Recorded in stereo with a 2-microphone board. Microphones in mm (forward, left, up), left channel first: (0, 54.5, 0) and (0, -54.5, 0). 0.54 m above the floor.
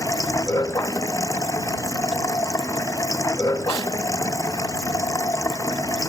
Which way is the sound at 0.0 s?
30° left (ahead or behind).